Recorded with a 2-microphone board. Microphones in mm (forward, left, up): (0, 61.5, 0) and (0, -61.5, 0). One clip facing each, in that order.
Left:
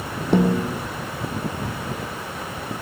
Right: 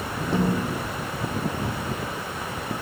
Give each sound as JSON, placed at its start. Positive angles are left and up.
{"t": 0.3, "sound": "a snare drum", "side_deg": 70, "distance_m": 1.7}